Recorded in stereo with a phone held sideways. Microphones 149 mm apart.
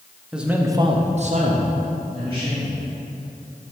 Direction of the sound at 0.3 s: 5° right (ahead or behind).